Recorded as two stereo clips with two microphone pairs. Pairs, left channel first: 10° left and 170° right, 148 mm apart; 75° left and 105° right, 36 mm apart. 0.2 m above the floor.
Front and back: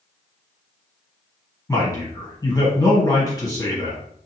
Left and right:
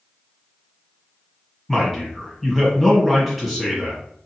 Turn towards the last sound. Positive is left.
turn(degrees=-15)